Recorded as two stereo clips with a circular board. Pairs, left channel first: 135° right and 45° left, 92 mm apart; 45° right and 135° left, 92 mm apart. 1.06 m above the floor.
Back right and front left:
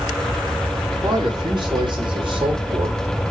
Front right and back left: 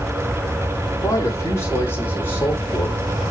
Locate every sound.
1.0 s a man speaking: 10° left, 3 m; by 3.0 s 25° left, 4.5 m